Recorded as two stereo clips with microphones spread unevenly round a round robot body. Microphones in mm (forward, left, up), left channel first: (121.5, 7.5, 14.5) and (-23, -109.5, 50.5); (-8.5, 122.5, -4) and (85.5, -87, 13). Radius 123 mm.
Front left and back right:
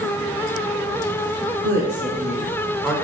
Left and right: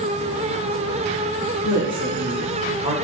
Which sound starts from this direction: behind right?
A woman speaking, at 1.6 s.